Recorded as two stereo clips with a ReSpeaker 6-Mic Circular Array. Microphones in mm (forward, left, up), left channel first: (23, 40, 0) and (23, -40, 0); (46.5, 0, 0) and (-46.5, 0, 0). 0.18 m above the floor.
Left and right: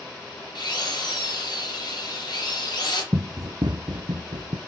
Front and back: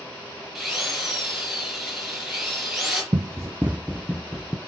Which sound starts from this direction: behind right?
Running footsteps, at 3.1 s.